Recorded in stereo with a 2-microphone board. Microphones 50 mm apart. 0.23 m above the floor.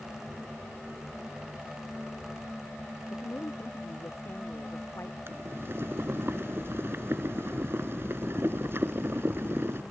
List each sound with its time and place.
3.1 s a woman speaking: 60° left (ahead or behind)
5.3 s boiling: 55° right (ahead or behind)